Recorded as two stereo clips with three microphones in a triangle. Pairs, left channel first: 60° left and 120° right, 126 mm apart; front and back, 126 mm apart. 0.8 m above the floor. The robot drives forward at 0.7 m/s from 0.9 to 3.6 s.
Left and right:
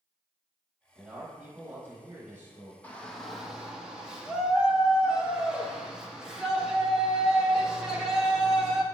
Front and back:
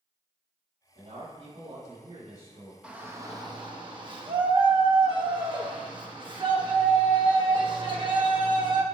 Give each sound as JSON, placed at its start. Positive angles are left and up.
{"t": 0.9, "sound": "a man speaking", "azimuth_deg": 160, "distance_m": 3.0}
{"t": 2.8, "sound": "a shout", "azimuth_deg": 115, "distance_m": 0.8}